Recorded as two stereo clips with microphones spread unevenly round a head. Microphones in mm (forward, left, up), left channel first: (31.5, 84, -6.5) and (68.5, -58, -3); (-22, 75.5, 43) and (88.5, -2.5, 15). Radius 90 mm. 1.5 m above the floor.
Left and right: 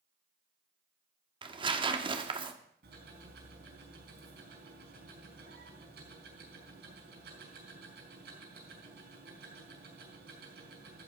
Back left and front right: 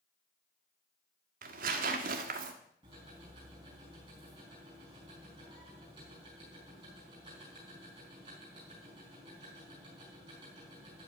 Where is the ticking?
105° right, 4.5 m.